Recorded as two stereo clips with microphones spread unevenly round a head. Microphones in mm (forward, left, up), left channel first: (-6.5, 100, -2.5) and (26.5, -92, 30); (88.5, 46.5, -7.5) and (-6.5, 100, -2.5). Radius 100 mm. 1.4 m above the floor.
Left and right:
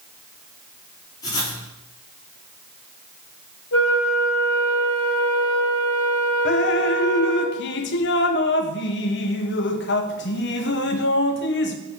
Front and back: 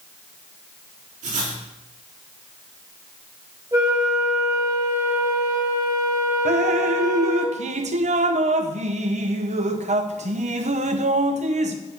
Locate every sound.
1.2 s writing: 175° left, 2.5 m
3.7 s a flute: 90° left, 3 m
6.5 s dripping: 140° left, 0.7 m